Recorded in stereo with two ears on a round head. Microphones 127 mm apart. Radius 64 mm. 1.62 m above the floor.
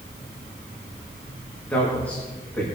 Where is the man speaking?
10° left (ahead or behind), 3 m.